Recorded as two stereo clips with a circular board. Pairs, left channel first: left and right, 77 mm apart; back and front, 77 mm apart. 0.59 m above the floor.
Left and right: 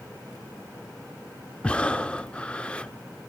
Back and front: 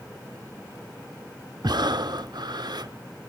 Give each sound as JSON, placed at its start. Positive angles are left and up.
{"t": 1.6, "sound": "breathing", "azimuth_deg": 15, "distance_m": 0.6}